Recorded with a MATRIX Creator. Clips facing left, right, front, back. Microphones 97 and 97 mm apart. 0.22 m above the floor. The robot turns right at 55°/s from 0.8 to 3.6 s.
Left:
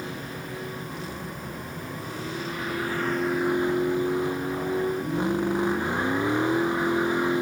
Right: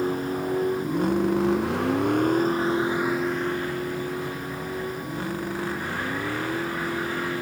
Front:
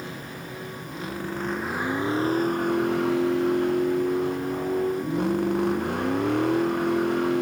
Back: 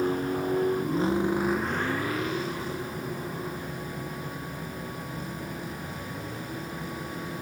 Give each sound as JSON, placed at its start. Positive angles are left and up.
{"t": 0.0, "sound": "a vehicle", "azimuth_deg": -135}